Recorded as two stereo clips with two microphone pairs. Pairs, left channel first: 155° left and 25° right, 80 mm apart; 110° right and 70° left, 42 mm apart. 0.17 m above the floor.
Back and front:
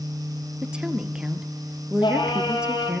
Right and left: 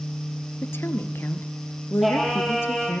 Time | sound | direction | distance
0.6 | a woman speaking | 105° right | 2.5 m
2.0 | singing | 160° left | 6.5 m